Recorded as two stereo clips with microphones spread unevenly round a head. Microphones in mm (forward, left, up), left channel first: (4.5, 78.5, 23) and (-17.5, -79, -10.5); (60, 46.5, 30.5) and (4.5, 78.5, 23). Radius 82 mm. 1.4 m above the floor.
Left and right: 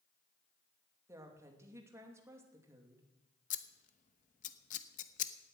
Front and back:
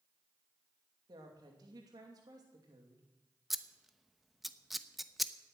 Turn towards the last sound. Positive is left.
turn(degrees=60)